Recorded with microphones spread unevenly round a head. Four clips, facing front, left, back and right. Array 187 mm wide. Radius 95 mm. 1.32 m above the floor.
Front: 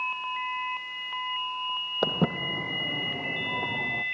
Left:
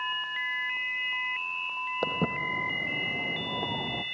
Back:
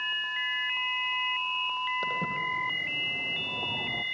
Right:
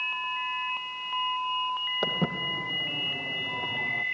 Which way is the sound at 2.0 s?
5° left.